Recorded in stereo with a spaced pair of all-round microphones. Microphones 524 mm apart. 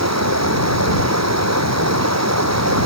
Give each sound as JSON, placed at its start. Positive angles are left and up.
{"t": 0.0, "sound": "running water", "side_deg": -30}